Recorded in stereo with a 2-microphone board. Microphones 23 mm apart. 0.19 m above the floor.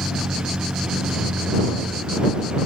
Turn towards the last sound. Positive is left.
turn(degrees=-45)  # may be behind; listen again after turning